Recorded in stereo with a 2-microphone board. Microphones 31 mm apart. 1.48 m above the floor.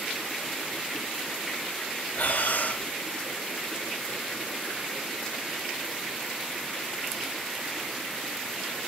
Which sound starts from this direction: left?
Breathing, at 2.1 s.